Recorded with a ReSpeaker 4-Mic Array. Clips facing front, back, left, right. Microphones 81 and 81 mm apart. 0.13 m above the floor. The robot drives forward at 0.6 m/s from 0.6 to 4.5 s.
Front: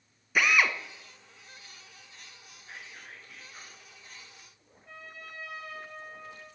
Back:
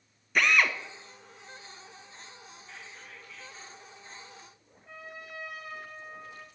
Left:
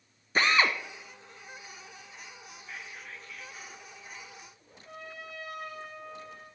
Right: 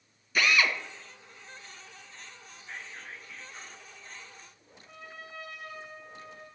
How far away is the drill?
About 0.6 m.